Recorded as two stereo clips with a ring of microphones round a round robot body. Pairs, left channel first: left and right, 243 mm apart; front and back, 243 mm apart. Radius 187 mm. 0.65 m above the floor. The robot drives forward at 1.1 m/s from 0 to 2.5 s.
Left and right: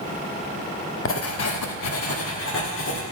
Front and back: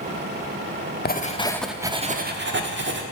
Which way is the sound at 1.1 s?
55° left.